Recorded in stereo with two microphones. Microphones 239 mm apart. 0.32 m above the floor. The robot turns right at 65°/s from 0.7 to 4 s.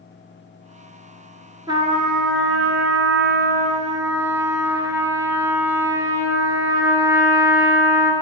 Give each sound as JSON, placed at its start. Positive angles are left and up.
{"t": 1.7, "sound": "a trumpet", "azimuth_deg": -165, "distance_m": 0.9}